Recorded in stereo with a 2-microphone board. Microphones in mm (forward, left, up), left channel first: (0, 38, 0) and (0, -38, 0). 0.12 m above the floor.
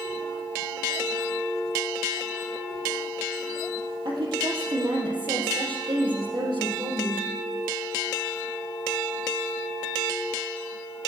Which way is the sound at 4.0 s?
70° right (ahead or behind).